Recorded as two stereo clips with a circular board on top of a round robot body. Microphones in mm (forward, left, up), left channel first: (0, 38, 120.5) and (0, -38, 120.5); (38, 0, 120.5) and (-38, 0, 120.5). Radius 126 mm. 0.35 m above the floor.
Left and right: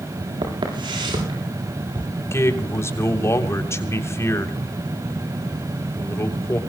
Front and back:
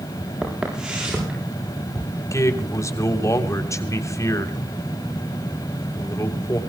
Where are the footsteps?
100° right, 8.5 m.